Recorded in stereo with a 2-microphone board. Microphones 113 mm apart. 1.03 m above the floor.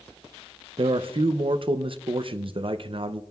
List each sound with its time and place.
0.8 s a man speaking: 50° right (ahead or behind), 0.6 m